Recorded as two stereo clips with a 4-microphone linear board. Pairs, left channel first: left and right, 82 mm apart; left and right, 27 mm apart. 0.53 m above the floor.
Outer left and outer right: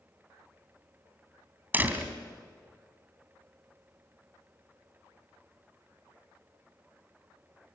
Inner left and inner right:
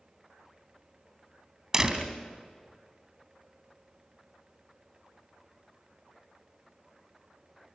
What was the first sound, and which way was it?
A door slam, 20° right (ahead or behind).